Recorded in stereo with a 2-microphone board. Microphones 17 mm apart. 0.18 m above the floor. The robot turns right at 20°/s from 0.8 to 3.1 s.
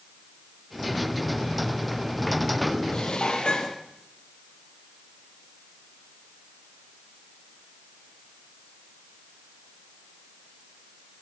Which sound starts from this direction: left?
Dishes clattering, at 2.9 s.